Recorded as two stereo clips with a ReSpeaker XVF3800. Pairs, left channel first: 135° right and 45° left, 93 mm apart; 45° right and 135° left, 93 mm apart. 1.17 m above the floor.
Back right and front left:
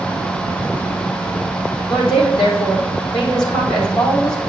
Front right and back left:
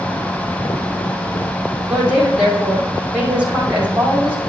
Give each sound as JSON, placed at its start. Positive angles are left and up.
{"t": 1.9, "sound": "a woman speaking", "azimuth_deg": -150, "distance_m": 4.0}